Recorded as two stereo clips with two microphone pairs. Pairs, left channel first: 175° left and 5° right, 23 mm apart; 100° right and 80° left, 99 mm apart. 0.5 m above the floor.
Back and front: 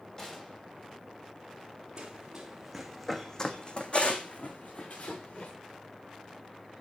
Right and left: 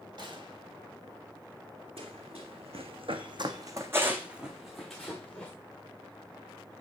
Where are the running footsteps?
60° left, 2.5 m; by 5.5 s straight behind, 3 m.